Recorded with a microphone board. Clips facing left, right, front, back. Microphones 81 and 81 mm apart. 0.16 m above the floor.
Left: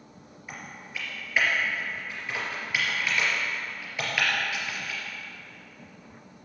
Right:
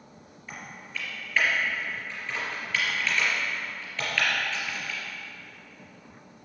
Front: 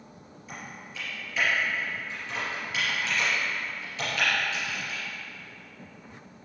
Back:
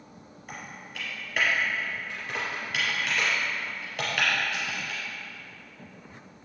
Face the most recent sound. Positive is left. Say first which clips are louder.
# even, even
turn(degrees=165)